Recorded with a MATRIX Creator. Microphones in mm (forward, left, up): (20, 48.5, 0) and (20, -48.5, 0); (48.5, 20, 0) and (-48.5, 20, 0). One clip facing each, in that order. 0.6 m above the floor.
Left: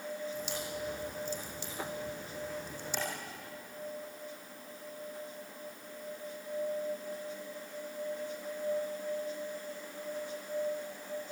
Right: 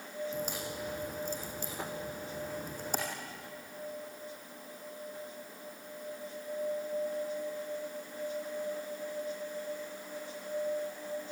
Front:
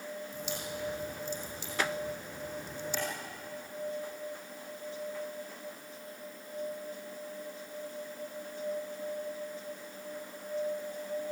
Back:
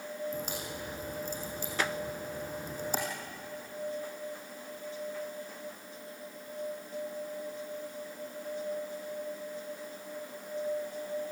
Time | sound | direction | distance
0.3 | a crack | 135° right | 6.5 m